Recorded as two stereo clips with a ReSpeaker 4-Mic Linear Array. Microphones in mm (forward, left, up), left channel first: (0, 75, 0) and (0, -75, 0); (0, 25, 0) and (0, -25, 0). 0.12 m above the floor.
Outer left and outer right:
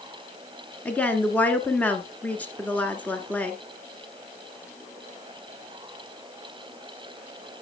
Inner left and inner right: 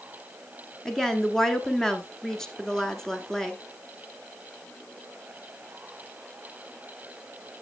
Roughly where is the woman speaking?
Centre.